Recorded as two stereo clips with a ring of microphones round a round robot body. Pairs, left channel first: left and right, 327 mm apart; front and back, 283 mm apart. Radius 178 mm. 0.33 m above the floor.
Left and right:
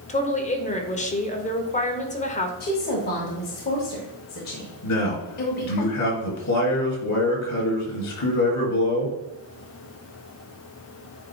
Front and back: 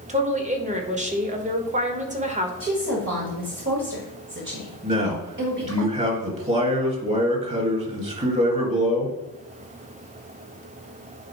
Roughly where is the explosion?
No explosion in this recording.